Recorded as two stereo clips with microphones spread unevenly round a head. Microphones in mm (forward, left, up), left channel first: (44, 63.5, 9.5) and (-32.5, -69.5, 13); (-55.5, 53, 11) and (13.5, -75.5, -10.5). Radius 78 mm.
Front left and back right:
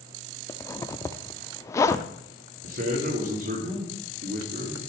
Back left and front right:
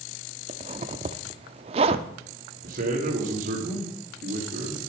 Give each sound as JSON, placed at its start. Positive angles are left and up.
{"t": 0.5, "sound": "a zipper", "azimuth_deg": -10, "distance_m": 0.5}
{"t": 2.6, "sound": "a man speaking", "azimuth_deg": -90, "distance_m": 2.5}